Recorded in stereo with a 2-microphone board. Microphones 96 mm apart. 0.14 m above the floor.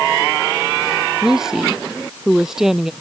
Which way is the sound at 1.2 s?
5° right (ahead or behind).